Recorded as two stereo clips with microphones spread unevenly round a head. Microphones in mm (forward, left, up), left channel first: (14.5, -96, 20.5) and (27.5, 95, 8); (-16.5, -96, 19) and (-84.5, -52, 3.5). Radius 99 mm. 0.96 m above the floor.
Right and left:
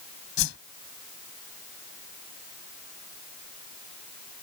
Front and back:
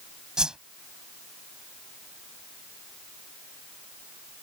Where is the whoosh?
130° right.